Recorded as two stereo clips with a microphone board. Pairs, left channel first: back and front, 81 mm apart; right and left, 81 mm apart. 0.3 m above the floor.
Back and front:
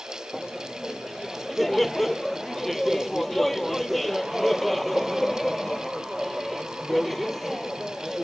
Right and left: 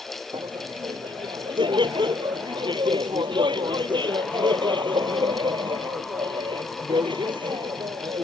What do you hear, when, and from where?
0.3 s laughter: 90° left